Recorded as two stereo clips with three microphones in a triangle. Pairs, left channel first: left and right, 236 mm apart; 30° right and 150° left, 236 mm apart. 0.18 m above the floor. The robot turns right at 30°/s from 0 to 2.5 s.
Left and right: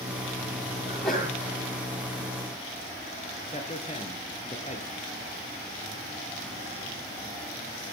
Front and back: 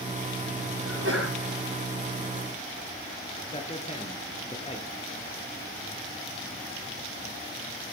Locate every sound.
0.8 s a sneeze: 170° left, 4.5 m; by 1.3 s 175° right, 4.5 m
3.5 s a man speaking: 30° left, 2.5 m